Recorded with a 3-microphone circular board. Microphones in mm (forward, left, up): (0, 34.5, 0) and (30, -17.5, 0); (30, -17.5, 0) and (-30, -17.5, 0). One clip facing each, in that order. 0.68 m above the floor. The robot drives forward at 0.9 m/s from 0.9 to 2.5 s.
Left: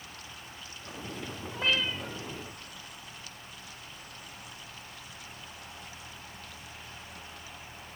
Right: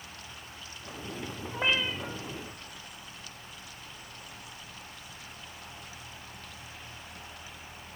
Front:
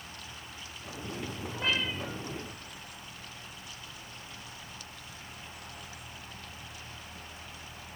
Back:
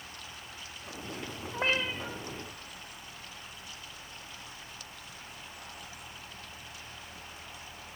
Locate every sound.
1.5 s a cat meowing: 125° right, 2.5 m; by 2.2 s 135° right, 3 m